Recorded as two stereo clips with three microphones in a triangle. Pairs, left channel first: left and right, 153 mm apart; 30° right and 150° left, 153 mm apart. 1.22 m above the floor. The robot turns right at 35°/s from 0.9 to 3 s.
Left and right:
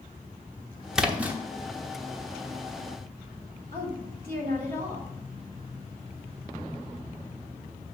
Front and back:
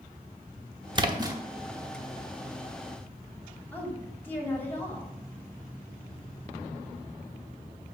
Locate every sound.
0.9 s a splash: 175° right, 0.9 m; by 1.4 s 160° right, 0.9 m
3.7 s a woman speaking: 110° right, 3 m